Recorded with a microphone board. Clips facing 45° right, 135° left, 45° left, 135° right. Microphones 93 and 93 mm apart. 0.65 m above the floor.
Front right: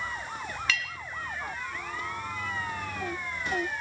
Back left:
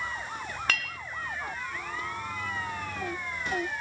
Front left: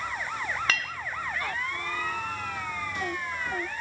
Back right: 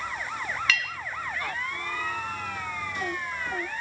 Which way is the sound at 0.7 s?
95° left.